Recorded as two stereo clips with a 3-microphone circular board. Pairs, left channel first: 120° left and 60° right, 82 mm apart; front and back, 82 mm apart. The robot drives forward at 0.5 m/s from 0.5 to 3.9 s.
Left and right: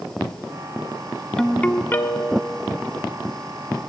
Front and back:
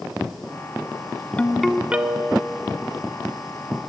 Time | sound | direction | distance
1.4 | a ringtone | 45° left | 0.5 m